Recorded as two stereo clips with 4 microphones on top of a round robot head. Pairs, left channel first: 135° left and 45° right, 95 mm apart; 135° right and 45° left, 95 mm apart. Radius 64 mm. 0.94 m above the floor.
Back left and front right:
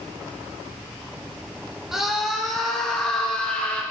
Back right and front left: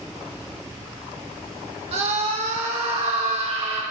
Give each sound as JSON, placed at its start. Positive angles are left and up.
{"t": 1.9, "sound": "a scream", "azimuth_deg": 40, "distance_m": 2.5}